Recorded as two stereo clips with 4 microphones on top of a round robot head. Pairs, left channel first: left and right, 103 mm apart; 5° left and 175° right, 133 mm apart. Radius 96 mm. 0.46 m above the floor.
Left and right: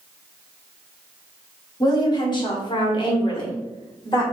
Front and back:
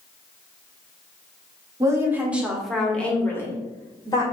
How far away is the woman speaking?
About 1.6 m.